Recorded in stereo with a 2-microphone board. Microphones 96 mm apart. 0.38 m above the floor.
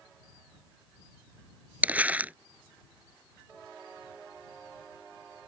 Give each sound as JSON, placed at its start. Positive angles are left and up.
{"t": 1.8, "sound": "crumpling", "side_deg": -15}